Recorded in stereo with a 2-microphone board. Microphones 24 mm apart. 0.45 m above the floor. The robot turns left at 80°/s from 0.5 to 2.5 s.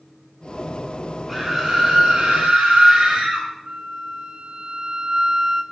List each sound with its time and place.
1.3 s a scream: 5° right, 1.8 m; by 3.5 s 100° right, 1.8 m
3.6 s a flute: 45° right (ahead or behind), 0.8 m